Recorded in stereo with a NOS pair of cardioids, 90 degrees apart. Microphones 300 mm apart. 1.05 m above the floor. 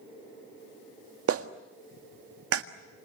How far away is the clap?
About 1.7 m.